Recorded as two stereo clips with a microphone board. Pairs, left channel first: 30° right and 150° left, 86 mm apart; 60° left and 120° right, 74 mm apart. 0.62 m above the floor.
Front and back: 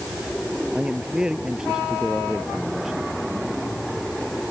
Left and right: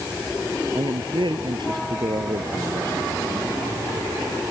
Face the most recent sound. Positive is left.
turn(degrees=-125)